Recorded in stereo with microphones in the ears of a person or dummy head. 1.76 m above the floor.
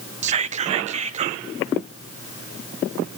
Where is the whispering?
35° right (ahead or behind), 0.6 m.